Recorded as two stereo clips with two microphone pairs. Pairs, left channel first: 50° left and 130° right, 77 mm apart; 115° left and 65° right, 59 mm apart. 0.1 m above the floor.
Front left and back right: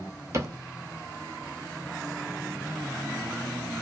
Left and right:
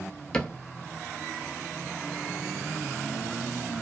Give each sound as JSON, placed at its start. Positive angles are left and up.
{"t": 0.3, "sound": "a cupboard door", "azimuth_deg": -170, "distance_m": 0.5}